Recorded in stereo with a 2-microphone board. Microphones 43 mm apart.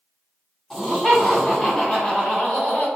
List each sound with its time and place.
0.7 s laughter: 5° left (ahead or behind), 2.0 m; by 2.9 s 40° left (ahead or behind), 2.0 m